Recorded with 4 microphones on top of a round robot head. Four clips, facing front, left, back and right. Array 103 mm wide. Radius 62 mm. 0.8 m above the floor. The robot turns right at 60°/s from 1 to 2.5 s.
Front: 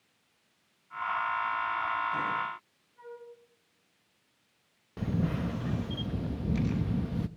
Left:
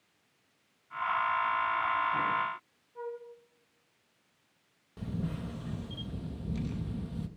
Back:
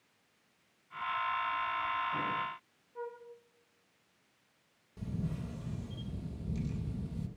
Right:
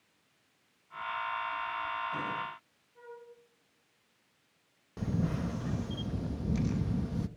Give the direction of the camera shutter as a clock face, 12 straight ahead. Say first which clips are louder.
Right 4 dB, front 8 dB; 1 o'clock.